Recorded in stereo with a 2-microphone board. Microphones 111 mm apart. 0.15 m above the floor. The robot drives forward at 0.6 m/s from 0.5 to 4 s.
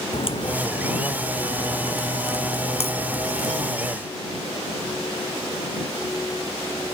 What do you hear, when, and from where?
0.1 s a crack: 55° left (ahead or behind); by 3.7 s 75° left (ahead or behind)